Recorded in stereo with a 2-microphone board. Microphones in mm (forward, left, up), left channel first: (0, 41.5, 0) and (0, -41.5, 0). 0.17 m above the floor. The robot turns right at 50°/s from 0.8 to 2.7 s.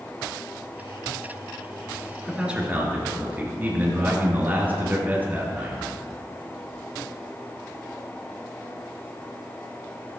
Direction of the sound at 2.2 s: Centre (ahead or behind).